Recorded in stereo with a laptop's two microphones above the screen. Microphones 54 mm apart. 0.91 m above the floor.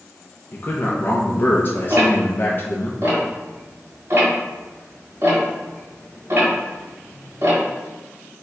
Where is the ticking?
45° right (ahead or behind), 1.6 m.